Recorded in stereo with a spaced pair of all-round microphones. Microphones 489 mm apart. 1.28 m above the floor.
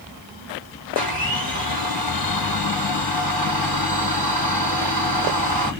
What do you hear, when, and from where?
0.9 s a blender: 45° right (ahead or behind), 1.8 m